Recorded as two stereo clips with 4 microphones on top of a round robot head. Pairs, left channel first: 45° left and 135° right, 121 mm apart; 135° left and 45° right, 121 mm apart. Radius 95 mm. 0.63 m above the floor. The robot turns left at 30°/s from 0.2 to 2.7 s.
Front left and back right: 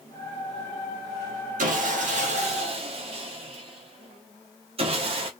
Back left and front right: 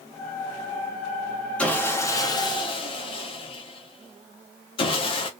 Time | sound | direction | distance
1.6 | sawing | 145° right | 0.6 m